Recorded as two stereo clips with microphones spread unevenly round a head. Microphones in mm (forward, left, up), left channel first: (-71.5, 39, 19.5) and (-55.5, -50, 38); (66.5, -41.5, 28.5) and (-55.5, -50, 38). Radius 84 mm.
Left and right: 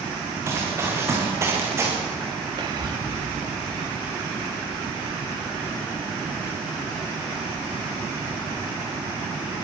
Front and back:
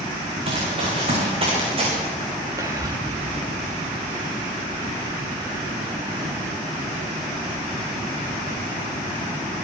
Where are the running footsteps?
135° right, 8 m.